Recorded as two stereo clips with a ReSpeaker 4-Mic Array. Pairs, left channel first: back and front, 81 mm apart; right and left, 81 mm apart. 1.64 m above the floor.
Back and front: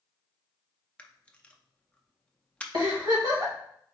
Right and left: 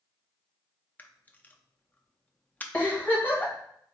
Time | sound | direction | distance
1.0 | a camera shutter | 125° right | 0.5 m
2.7 | a giggle | 25° right | 1.8 m